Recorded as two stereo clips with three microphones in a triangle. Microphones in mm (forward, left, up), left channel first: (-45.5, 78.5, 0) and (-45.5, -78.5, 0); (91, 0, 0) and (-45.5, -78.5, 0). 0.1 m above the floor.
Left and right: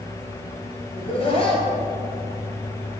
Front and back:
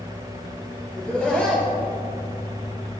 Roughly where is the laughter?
Left.